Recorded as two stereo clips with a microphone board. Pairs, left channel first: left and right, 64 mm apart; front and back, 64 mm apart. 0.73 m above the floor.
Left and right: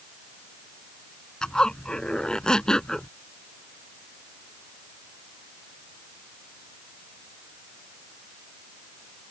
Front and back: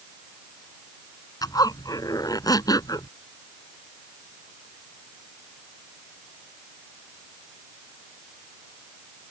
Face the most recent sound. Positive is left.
turn(degrees=10)